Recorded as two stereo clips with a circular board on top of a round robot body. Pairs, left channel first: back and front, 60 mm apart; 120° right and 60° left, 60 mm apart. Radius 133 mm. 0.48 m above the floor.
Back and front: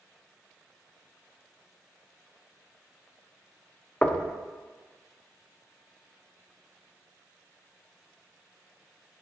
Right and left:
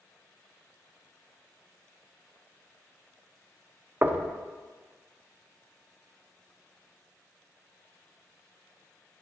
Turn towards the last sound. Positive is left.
turn(degrees=110)